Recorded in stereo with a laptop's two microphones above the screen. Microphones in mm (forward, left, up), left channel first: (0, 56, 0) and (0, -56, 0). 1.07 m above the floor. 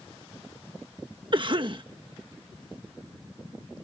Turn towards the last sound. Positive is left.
turn(degrees=-45)  # may be behind; listen again after turning